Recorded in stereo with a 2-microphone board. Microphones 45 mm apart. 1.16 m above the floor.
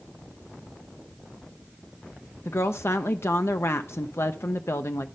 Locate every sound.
2.5 s a woman speaking: 70° left (ahead or behind), 0.6 m